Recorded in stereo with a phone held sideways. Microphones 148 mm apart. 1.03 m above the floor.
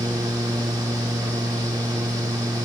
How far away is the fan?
About 1.2 m.